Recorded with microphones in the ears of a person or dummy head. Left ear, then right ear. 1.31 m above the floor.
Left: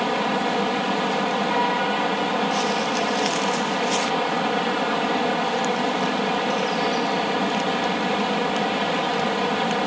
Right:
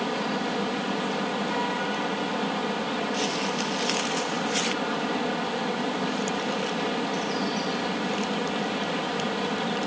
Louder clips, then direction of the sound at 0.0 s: Left 6 dB; 30° left (ahead or behind).